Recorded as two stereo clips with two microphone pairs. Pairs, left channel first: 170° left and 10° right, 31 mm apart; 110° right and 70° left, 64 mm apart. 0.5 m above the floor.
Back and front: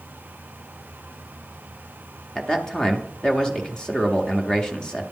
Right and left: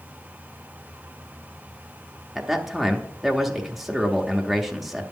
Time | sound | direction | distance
2.4 | a man speaking | 160° left | 0.8 m